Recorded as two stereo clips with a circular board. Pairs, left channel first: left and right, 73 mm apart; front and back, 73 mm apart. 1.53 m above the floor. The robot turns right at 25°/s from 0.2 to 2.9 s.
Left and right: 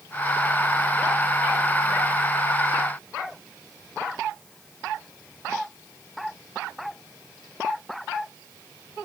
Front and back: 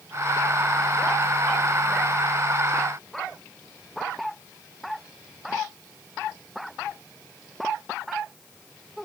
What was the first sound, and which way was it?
Only background noise.